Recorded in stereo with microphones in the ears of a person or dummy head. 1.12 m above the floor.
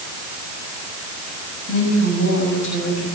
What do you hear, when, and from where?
1.7 s a woman speaking: 70° left (ahead or behind), 6 m